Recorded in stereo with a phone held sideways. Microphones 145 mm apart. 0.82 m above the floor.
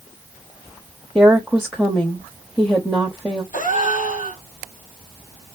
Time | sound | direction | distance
1.1 | a woman speaking | centre (ahead or behind) | 1.0 m
3.5 | a gasp | 65° left (ahead or behind) | 1.2 m